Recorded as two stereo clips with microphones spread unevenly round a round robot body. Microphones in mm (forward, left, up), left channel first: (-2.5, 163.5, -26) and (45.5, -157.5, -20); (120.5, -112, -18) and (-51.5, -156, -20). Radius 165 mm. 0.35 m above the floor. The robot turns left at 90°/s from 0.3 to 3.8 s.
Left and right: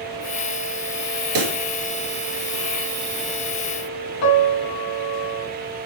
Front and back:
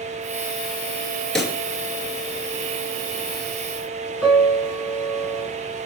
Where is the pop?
75° right, 2.5 m; by 1.6 s 95° right, 2.5 m.